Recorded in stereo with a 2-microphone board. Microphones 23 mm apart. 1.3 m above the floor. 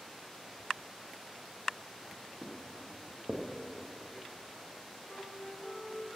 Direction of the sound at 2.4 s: 5° left (ahead or behind).